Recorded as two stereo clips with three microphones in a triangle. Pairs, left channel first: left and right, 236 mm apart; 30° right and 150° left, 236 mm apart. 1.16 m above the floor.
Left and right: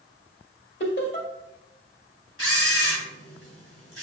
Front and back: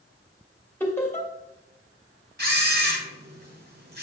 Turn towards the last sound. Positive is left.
turn(degrees=105)